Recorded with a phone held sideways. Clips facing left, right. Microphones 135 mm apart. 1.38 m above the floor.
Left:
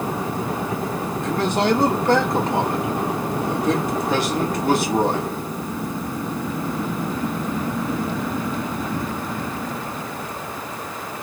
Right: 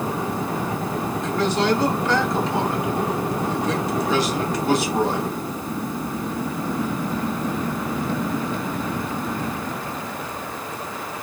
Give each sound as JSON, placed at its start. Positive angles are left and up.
{"t": 1.2, "sound": "a man speaking", "side_deg": 55, "distance_m": 2.0}